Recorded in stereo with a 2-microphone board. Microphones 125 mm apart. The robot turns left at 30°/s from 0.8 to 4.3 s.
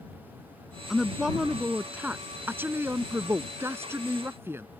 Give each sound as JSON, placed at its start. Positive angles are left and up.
{"t": 0.9, "sound": "a woman speaking", "side_deg": -5}